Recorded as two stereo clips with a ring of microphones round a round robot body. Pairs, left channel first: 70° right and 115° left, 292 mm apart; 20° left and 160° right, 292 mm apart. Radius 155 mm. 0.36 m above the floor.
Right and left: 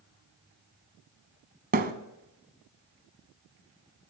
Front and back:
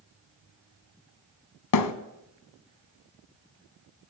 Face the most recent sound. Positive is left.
turn(degrees=50)